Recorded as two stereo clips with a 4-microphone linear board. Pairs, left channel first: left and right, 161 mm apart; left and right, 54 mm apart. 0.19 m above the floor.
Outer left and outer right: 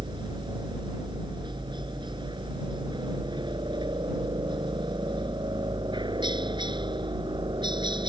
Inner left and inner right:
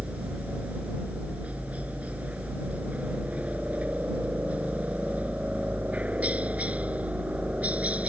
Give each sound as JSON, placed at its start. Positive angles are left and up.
{"t": 0.0, "sound": "a helicopter", "side_deg": -30}